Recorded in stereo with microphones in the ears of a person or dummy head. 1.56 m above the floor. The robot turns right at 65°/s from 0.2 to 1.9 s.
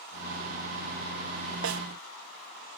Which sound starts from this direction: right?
A snare drum, at 1.6 s.